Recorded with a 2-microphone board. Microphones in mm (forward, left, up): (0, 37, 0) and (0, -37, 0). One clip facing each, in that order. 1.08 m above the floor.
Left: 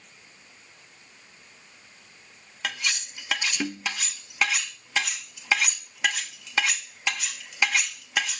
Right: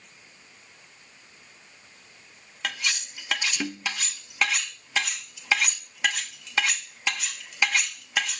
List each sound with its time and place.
2.6 s cutlery clinking: 5° left (ahead or behind)